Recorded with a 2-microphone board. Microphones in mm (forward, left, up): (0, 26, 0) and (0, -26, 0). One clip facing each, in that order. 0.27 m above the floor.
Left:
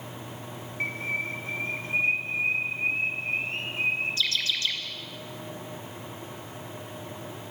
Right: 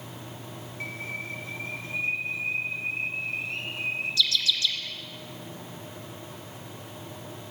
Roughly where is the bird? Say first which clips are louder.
Left 6 dB; left.